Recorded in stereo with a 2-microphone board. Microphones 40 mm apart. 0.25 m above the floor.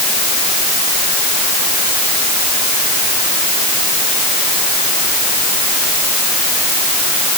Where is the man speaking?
I don't hear a man speaking.